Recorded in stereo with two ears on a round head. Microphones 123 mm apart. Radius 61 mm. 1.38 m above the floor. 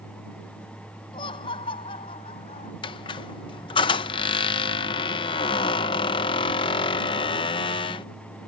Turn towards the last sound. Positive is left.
turn(degrees=35)  # may be behind; listen again after turning